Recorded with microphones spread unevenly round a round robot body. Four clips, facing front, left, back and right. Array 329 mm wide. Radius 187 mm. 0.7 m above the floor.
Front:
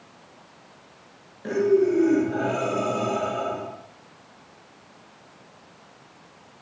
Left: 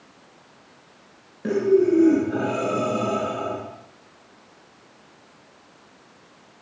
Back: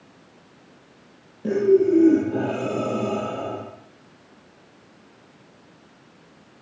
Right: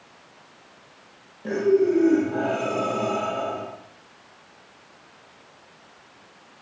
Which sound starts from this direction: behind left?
Breathing, at 1.4 s.